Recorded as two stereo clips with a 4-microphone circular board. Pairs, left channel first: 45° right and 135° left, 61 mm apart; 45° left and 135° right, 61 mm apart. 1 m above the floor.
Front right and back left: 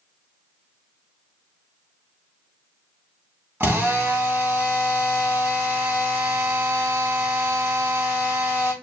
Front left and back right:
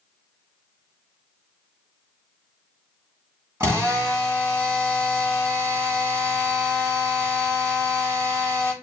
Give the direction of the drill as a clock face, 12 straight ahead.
6 o'clock.